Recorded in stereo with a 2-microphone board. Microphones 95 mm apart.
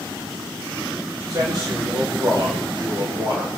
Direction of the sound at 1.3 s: 50° right (ahead or behind).